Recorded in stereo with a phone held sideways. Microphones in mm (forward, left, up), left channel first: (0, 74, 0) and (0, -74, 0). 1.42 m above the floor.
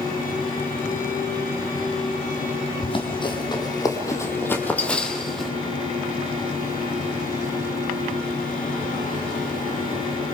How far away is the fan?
About 4.5 m.